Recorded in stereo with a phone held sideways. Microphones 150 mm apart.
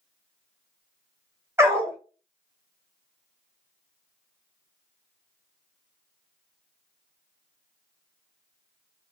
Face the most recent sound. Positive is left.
turn(degrees=-15)  # may be behind; listen again after turning